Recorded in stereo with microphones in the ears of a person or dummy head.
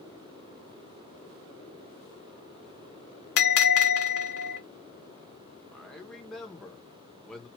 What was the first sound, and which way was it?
A bell, 60° left (ahead or behind).